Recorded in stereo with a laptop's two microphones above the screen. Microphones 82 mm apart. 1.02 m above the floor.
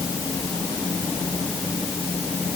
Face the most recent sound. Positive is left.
No sound to turn to.